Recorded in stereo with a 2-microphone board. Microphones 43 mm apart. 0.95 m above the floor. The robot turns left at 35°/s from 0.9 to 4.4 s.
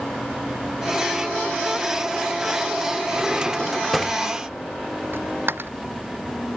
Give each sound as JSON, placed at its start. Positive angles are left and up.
{"t": 3.1, "sound": "a drawer", "azimuth_deg": -145}
{"t": 5.1, "sound": "a dropped coin", "side_deg": -60}